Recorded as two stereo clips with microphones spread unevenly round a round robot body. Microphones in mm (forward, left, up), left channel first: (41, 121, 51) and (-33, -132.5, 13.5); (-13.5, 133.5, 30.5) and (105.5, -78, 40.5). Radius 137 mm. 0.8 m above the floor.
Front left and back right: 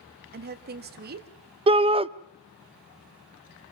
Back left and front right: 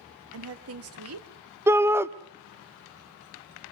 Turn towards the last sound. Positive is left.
turn(degrees=-135)